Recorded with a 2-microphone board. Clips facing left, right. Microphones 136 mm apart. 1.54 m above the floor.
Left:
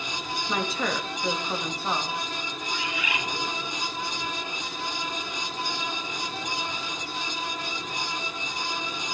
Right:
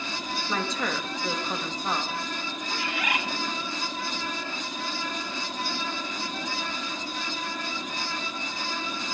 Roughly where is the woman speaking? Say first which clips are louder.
Left 2 dB; centre.